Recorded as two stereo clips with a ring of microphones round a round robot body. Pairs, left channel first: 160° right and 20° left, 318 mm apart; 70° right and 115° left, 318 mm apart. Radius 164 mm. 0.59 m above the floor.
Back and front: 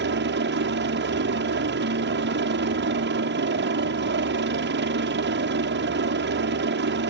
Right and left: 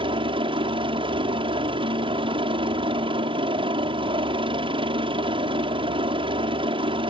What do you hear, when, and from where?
0.0 s a helicopter: 50° left